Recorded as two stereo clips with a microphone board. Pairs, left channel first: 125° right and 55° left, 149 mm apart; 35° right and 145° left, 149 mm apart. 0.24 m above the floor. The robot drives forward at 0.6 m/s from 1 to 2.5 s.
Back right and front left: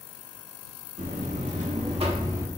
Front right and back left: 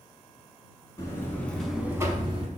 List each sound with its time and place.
1.0 s a buzzer: 30° left, 0.8 m; by 2.5 s 120° left, 0.6 m